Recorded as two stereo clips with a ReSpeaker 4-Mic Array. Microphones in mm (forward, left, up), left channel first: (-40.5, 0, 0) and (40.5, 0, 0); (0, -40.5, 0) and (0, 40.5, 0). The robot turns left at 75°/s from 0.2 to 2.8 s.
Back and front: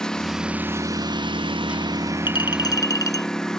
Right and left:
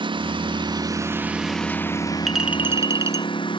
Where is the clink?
Straight behind; by 3.3 s 140° left.